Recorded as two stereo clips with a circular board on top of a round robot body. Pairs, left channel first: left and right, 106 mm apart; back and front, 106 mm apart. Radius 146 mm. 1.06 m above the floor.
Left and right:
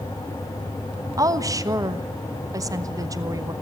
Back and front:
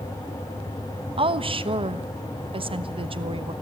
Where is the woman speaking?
35° right, 1.3 m.